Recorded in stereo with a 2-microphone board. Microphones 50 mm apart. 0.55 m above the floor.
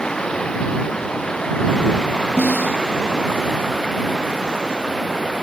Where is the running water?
15° left (ahead or behind).